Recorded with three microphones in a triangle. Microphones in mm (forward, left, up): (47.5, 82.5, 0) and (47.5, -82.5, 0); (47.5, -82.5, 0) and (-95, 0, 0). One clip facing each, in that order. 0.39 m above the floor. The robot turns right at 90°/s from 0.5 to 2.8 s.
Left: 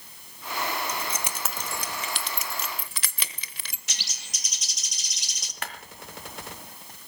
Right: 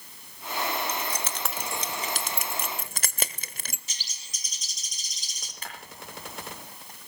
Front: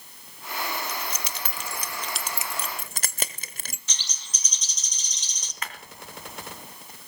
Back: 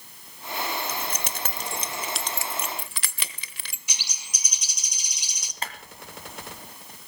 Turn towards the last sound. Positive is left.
turn(degrees=90)